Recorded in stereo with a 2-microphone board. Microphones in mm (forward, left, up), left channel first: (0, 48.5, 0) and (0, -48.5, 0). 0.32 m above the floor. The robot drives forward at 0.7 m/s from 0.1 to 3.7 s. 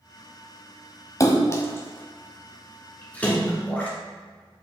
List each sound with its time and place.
1.2 s a splash: 35° left (ahead or behind), 1.1 m; by 3.9 s 15° left (ahead or behind), 2.5 m